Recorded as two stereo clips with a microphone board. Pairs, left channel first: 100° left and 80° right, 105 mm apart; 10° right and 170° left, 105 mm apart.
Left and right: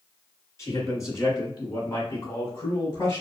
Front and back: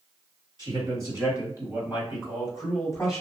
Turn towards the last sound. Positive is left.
turn(degrees=70)